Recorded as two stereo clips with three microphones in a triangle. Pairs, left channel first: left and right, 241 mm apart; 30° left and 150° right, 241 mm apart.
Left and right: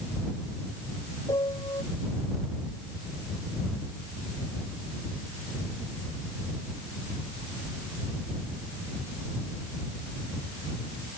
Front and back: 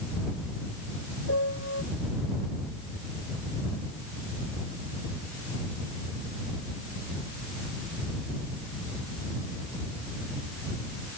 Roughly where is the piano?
Ahead.